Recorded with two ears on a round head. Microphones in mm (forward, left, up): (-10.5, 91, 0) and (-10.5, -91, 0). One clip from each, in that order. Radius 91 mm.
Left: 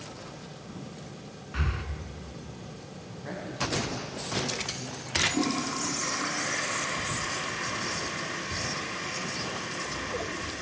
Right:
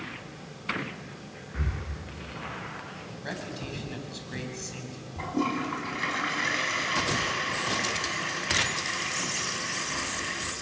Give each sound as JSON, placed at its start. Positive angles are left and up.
{"t": 1.5, "sound": "breathing", "side_deg": 75, "distance_m": 2.5}
{"t": 3.1, "sound": "a man speaking", "side_deg": -80, "distance_m": 5.5}
{"t": 5.2, "sound": "a toilet flushing", "side_deg": -80, "distance_m": 5.0}